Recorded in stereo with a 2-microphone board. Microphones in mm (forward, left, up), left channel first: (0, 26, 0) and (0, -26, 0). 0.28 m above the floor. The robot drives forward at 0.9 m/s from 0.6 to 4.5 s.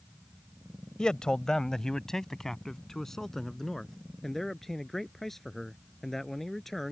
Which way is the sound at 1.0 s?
15° left (ahead or behind).